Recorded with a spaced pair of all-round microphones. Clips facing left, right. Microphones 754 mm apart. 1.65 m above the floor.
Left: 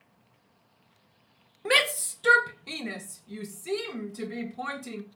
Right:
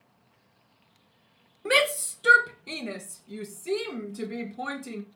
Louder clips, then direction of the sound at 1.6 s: Right 3 dB; 30° left (ahead or behind).